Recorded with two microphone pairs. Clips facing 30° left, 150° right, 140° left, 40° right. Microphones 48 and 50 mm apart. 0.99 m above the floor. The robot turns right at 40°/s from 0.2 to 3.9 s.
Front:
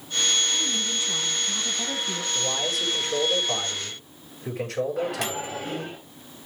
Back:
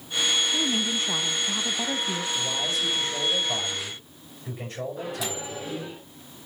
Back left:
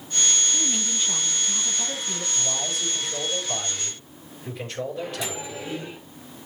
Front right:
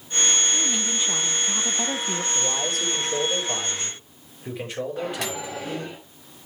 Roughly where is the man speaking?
Ahead right.